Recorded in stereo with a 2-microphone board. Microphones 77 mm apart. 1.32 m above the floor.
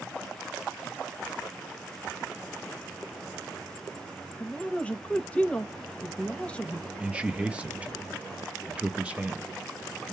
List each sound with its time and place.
4.4 s a man speaking: 15° left (ahead or behind), 1.1 m
7.0 s a man speaking: 15° right (ahead or behind), 0.9 m